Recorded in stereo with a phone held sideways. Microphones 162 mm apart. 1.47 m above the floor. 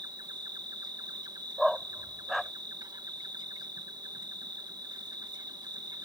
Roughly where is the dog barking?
Centre.